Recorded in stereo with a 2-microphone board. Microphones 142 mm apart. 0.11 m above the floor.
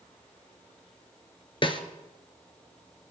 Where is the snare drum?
40° left (ahead or behind), 1.1 m.